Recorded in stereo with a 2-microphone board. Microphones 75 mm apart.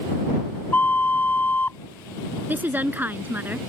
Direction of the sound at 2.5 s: 25° right (ahead or behind).